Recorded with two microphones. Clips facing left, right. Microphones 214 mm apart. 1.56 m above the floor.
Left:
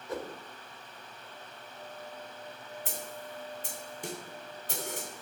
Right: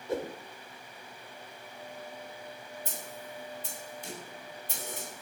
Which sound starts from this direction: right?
A whoosh, at 0.1 s.